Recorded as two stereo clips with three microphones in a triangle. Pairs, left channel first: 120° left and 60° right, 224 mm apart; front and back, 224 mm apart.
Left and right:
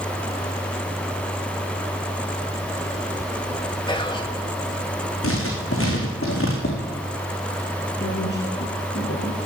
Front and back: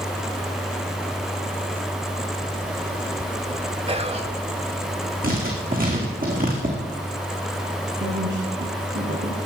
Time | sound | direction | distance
3.9 | whispering | 160° left | 1.5 m
5.2 | writing | 130° left | 4 m
8.0 | a woman speaking | 155° left | 3.5 m